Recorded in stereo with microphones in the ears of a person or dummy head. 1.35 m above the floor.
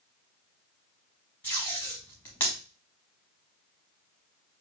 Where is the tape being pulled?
10° left (ahead or behind), 1.1 m.